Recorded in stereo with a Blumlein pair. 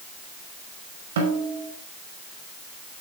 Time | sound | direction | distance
1.2 | a snare drum | 60° right | 5 m